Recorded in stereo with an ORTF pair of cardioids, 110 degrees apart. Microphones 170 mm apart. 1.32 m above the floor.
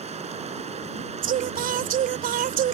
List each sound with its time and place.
0.0 s running water: 40° right
1.2 s singing: 60° right